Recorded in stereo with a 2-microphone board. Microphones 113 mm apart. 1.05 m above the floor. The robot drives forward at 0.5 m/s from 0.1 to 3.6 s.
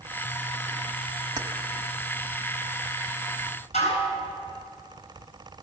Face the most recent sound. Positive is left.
turn(degrees=85)